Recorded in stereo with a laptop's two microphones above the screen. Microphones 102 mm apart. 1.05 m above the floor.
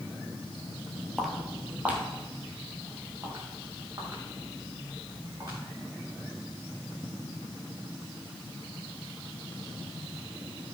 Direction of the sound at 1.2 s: Centre (ahead or behind).